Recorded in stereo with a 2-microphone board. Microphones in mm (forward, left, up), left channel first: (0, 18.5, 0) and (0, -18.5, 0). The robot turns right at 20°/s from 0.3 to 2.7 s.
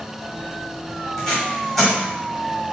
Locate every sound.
1.2 s tape being pulled: 15° left (ahead or behind), 1.5 m; by 1.9 s centre (ahead or behind), 1.5 m